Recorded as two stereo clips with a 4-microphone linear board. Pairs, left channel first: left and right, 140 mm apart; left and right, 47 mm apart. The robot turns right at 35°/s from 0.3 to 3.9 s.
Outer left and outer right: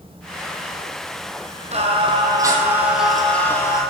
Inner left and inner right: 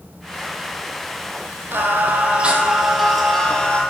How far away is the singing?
About 1.9 m.